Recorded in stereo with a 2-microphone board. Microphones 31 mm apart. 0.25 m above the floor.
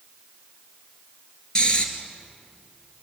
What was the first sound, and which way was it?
Snoring, 30° left (ahead or behind).